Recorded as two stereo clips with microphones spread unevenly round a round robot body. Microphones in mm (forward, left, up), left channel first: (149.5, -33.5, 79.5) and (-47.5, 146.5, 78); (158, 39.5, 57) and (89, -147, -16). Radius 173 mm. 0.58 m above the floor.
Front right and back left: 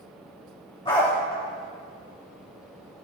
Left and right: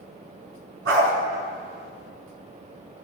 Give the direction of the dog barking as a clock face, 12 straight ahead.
4 o'clock.